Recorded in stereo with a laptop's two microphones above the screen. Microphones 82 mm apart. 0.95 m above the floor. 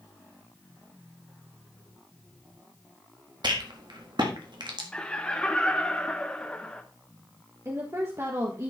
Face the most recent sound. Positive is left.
turn(degrees=-35)  # may be behind; listen again after turning